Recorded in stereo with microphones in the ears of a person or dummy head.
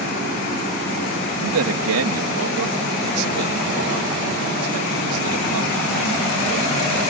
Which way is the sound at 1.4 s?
80° right.